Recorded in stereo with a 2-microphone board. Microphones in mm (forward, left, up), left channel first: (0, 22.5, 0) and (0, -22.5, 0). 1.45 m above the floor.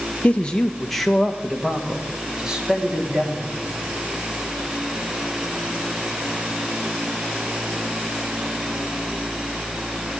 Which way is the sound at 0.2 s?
30° left (ahead or behind).